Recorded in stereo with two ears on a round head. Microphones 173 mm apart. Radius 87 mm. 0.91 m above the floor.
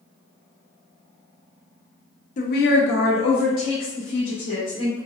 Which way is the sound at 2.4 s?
40° left (ahead or behind).